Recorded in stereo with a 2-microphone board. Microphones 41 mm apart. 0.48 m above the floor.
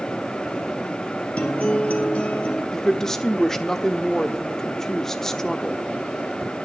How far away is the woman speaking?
About 1.2 m.